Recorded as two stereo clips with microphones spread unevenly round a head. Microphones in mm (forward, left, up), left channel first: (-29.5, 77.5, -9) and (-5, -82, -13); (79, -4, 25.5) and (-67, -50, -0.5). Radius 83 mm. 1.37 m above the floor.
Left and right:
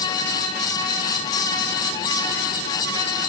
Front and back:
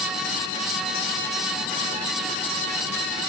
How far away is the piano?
No piano in this recording.